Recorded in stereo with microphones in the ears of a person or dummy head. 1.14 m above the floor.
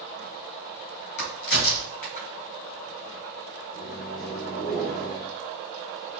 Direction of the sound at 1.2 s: 70° left (ahead or behind).